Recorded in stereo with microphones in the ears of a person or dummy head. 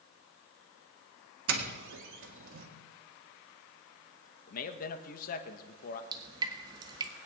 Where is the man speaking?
55° left (ahead or behind), 1.5 m.